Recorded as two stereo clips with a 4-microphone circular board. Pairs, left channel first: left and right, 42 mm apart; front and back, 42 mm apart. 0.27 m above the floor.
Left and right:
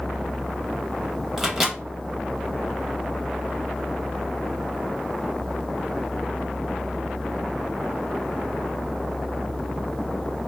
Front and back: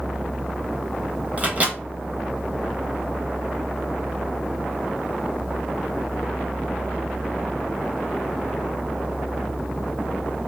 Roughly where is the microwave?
Behind.